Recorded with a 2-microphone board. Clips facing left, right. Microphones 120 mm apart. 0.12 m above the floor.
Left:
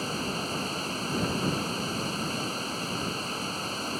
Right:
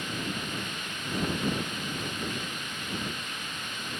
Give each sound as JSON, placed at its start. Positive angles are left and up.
{"t": 0.0, "sound": "running water", "side_deg": 35}